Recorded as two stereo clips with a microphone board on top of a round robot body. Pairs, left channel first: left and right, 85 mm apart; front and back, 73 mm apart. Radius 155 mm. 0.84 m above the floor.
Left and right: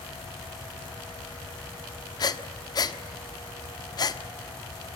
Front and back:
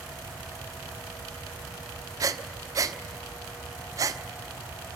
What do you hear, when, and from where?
2.2 s breathing: 135° left, 1.2 m